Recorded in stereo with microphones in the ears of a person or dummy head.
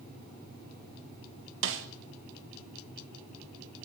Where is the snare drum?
60° right (ahead or behind), 1.2 m.